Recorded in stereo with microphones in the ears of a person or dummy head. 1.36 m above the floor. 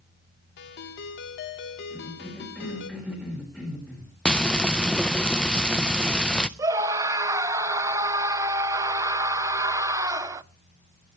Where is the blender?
I don't hear a blender.